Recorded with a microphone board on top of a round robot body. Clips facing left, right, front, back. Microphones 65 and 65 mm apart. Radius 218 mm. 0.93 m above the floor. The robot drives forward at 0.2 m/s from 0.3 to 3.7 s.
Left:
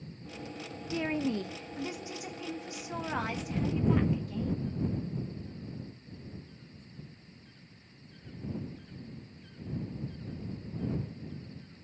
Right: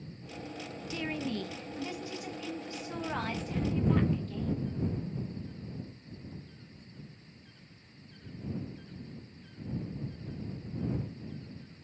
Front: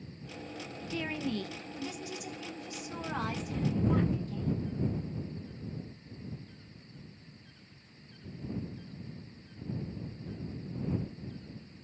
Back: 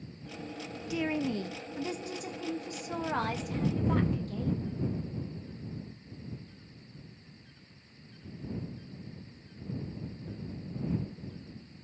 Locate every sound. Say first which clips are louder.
0.9 s a woman speaking: left 4 dB, back 4 dB; 115° left, 0.5 m; by 4.6 s 165° left, 0.8 m